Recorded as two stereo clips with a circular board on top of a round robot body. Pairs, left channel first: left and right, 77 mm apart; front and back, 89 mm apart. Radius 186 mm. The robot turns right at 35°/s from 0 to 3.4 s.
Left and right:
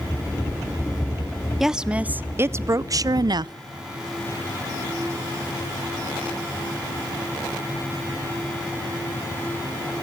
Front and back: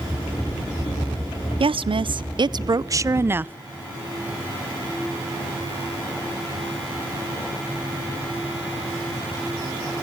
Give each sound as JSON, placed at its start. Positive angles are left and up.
{"t": 1.6, "sound": "a woman speaking", "azimuth_deg": -175, "distance_m": 0.7}